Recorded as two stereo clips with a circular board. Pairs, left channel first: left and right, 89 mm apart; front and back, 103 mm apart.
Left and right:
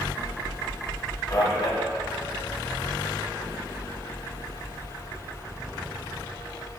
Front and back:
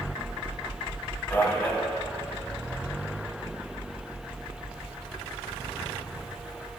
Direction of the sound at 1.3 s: 65° left.